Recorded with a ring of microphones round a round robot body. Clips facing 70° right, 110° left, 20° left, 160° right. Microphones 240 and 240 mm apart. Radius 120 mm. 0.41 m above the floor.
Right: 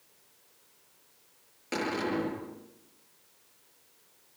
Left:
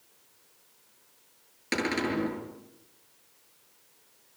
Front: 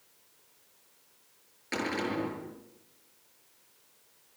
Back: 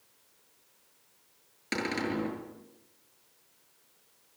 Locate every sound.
1.7 s a cupboard door: 165° left, 7.5 m